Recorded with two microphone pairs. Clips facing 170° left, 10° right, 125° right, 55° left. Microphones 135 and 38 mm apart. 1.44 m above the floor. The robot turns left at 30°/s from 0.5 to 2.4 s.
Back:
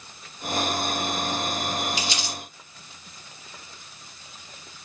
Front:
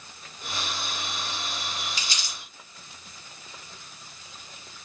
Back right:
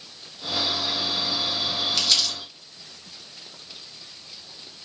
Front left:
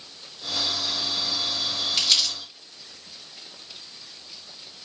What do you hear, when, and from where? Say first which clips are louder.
2.0 s crumpling: back 7 dB, front left 2 dB; 10° right, 1.5 m; by 2.4 s 20° right, 1.5 m